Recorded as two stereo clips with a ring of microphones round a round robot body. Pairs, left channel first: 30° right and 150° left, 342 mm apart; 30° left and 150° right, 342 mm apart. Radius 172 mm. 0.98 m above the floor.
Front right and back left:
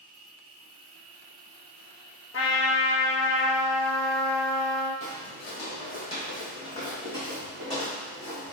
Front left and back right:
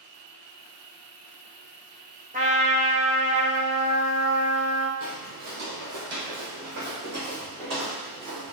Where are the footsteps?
100° right, 2.0 m; by 8.5 s 110° right, 4 m.